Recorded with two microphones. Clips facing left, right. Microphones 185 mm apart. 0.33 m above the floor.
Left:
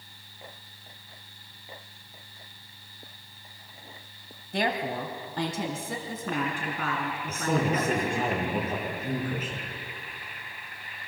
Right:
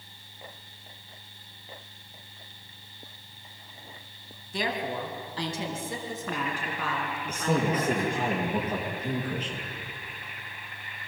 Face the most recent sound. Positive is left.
turn(degrees=5)  # may be behind; listen again after turning